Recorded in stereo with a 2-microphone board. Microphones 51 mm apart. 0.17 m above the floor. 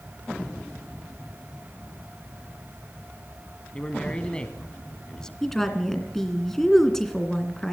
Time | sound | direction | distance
3.7 | a man speaking | 25° left (ahead or behind) | 1.2 m
5.4 | a woman speaking | 10° left (ahead or behind) | 2.5 m